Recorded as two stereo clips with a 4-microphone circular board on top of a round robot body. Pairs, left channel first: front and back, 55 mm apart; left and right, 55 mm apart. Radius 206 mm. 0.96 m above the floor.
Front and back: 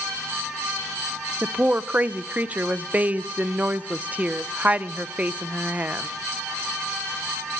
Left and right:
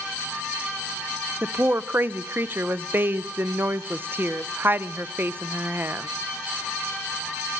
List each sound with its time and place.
1.4 s a woman speaking: 125° right, 0.6 m